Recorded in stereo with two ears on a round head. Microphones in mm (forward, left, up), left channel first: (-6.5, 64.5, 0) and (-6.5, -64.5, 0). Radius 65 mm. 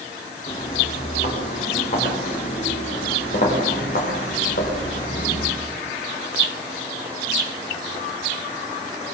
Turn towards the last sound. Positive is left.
turn(degrees=65)  # may be behind; listen again after turning